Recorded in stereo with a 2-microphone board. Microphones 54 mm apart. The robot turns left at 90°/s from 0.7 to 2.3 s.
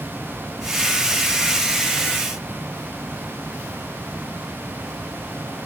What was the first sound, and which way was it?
Only background noise.